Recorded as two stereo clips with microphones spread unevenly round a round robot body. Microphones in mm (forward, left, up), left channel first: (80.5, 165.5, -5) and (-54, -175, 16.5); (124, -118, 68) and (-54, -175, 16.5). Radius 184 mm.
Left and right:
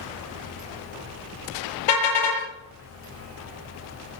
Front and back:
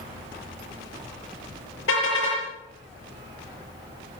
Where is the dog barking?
No dog barking in this recording.